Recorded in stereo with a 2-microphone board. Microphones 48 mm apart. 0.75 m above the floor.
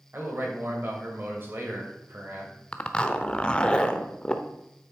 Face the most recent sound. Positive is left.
turn(degrees=20)  # may be behind; listen again after turning